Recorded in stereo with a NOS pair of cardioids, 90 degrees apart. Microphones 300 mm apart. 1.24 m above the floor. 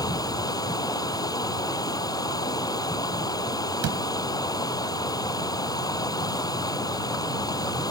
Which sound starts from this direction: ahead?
Running water, at 0.0 s.